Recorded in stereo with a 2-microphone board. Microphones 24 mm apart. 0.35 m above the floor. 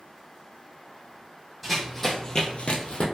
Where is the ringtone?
No ringtone in this recording.